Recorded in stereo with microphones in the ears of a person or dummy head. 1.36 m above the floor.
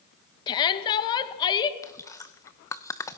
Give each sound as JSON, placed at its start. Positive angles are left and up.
{"t": 0.5, "sound": "a shout", "side_deg": 25, "distance_m": 1.9}
{"t": 1.8, "sound": "chewing", "side_deg": 10, "distance_m": 1.0}